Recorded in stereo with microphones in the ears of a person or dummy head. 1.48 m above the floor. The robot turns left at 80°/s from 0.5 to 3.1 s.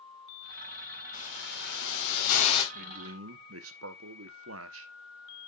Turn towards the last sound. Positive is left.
turn(degrees=-80)